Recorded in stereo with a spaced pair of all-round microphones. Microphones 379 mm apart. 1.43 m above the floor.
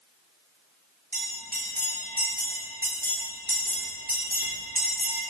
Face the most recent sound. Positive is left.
turn(degrees=-25)  # may be behind; listen again after turning